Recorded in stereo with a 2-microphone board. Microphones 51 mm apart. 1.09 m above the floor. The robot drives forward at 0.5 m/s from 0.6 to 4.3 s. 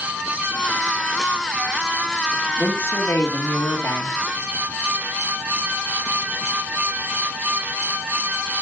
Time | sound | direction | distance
2.6 | a woman speaking | 55° left (ahead or behind) | 1.8 m